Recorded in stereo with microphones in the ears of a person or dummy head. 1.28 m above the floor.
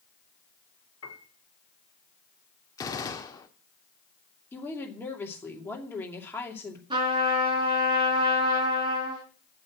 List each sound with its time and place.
1.0 s a piano: 75° left (ahead or behind), 1.6 m
2.8 s a gunshot: 25° left (ahead or behind), 1.3 m
4.5 s a woman speaking: 10° left (ahead or behind), 2.5 m
6.9 s a trumpet: 25° right (ahead or behind), 3.5 m